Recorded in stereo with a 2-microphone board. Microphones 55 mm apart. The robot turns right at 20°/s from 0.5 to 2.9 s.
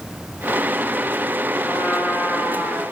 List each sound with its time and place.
1.6 s a trumpet: 15° right (ahead or behind), 6 m; by 2.8 s 40° right (ahead or behind), 6 m